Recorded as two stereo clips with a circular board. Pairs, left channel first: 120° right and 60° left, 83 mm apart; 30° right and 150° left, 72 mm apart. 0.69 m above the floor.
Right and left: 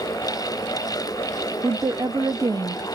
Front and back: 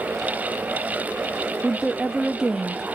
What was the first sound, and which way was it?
A woman speaking, 75° left.